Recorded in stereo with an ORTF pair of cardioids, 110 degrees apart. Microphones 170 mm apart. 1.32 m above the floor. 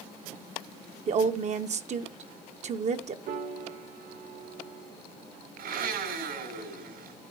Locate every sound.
1.1 s a woman speaking: 45° right, 1.1 m
3.3 s a piano: 65° right, 2.5 m
5.6 s a blender: 70° right, 4.5 m